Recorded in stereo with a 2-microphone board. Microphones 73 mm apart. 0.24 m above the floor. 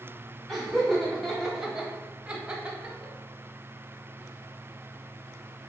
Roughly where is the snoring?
I don't hear snoring.